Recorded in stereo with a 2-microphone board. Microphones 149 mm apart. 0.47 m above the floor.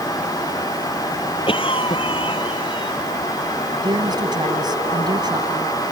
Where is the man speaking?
30° right (ahead or behind).